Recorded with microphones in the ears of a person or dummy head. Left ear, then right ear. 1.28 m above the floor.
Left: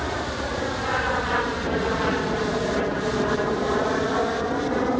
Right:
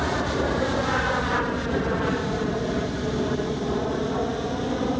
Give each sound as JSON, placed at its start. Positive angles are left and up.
{"t": 0.0, "sound": "an aircraft", "side_deg": 0}